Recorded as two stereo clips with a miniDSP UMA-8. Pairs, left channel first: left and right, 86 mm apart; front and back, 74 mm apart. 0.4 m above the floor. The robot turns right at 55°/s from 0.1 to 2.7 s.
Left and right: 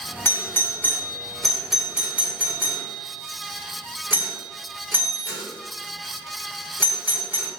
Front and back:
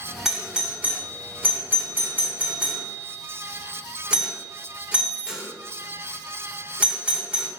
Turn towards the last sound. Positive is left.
turn(degrees=-125)